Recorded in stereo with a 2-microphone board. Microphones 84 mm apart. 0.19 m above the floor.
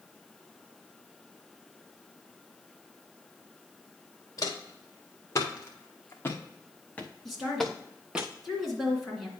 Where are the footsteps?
40° left (ahead or behind), 2.5 m; by 8.2 s 15° right (ahead or behind), 0.9 m.